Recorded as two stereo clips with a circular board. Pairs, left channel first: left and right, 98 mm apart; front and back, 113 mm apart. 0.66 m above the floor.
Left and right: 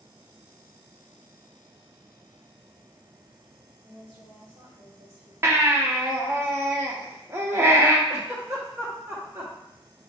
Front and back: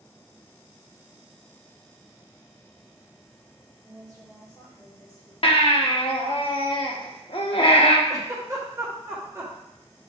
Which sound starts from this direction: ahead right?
A baby crying, at 5.4 s.